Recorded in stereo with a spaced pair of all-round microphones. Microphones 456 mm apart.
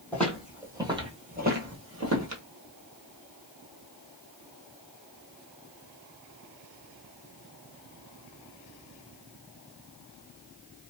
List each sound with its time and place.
0.1 s footsteps: 5° left (ahead or behind), 1.6 m; by 2.4 s 40° right (ahead or behind), 1.5 m